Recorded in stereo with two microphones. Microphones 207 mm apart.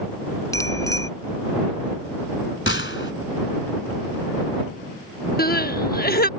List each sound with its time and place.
0.5 s a bicycle bell: 15° left (ahead or behind)
2.7 s a gunshot: 75° left (ahead or behind)
5.4 s crying: 45° left (ahead or behind)